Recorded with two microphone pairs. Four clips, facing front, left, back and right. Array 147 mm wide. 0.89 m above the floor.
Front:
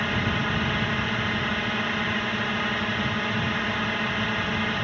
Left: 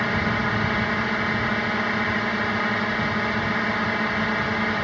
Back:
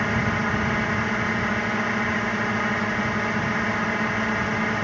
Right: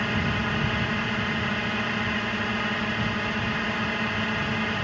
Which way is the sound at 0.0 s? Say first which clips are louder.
Left 3 dB, back 3 dB; 125° left.